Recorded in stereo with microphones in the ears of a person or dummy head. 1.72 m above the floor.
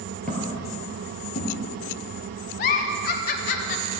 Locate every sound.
0.3 s footsteps: 5° left (ahead or behind), 2 m; by 1.6 s 35° left (ahead or behind), 3.5 m
2.6 s a giggle: 40° left (ahead or behind), 0.7 m